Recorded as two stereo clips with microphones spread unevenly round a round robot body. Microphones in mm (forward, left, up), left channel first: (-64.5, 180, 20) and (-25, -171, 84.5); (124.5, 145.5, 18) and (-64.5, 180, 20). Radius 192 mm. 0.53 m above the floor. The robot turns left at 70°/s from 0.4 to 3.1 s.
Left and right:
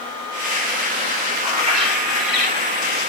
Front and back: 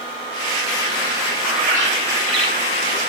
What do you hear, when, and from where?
1.4 s a bird: 80° right, 3.5 m; by 3.0 s 170° left, 3.5 m